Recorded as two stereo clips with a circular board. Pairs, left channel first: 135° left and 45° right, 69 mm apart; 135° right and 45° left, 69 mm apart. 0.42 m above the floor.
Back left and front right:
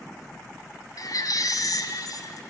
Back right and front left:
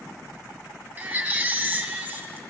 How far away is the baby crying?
About 1.9 m.